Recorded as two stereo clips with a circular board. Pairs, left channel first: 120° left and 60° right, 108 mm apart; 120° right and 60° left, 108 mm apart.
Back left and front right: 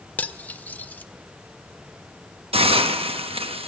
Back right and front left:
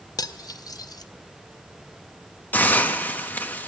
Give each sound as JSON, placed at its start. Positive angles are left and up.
{"t": 0.2, "sound": "cutlery clinking", "azimuth_deg": -165, "distance_m": 0.5}
{"t": 2.5, "sound": "a hiss", "azimuth_deg": -45, "distance_m": 0.8}